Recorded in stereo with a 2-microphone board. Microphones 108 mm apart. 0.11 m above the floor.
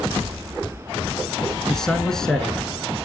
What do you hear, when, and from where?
1.7 s a man speaking: 5° left (ahead or behind), 1.1 m